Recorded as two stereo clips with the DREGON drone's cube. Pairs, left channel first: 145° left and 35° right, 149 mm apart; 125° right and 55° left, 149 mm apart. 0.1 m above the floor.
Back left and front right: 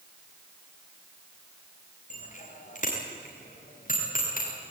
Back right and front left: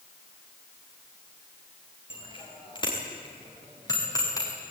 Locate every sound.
2.1 s a bicycle bell: straight behind, 7.5 m; by 4.5 s 170° left, 7 m